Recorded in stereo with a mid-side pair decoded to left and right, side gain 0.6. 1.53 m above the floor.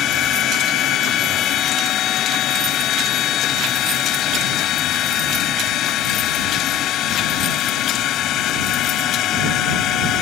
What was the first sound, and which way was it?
A machine running, 55° left.